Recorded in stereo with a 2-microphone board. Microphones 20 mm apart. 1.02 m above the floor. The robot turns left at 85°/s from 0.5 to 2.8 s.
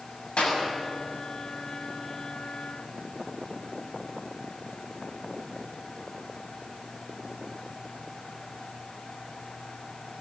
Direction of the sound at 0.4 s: 85° left.